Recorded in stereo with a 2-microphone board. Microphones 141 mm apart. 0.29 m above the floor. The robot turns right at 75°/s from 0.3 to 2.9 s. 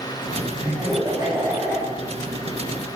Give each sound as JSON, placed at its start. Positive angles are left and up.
{"t": 0.6, "sound": "laughter", "azimuth_deg": -95, "distance_m": 1.6}